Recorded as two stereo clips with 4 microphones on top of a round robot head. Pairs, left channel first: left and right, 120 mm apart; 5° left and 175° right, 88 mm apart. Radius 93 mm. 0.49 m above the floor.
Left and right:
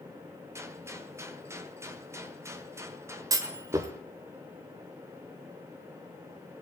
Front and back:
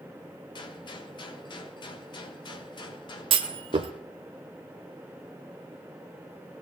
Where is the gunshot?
25° right, 1.4 m.